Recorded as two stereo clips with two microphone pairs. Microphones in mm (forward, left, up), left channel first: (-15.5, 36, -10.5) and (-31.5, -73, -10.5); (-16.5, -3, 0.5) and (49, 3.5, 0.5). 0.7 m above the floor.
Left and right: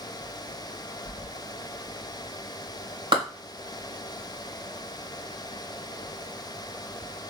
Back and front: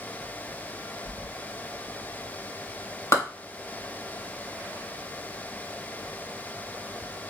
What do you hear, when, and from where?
1.1 s keys jangling: 145° right, 2.5 m
3.1 s a clap: 135° right, 3 m